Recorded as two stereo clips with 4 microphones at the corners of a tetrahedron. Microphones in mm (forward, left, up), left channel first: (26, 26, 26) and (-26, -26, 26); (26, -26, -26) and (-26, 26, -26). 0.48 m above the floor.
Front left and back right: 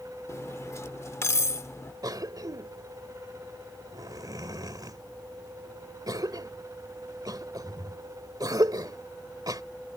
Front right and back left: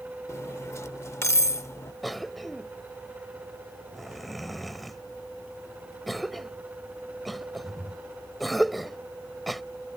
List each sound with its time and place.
0.3 s cutlery clinking: straight ahead
2.0 s a cough: 135° right